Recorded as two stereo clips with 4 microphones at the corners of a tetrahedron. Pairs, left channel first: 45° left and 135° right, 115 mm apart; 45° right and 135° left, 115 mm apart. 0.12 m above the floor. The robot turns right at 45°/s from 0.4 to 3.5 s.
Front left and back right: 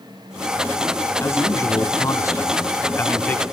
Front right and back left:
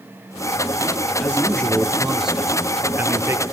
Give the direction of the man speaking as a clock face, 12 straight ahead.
12 o'clock.